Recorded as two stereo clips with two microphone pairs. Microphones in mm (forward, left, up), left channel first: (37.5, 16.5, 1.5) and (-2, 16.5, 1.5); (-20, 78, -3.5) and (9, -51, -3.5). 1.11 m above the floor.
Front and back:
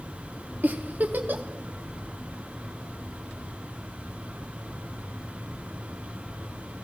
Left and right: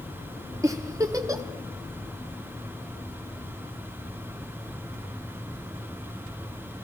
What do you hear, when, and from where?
0.6 s a giggle: 140° right, 1.1 m